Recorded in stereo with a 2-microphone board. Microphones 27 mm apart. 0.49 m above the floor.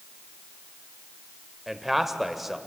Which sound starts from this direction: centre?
A man speaking, at 1.7 s.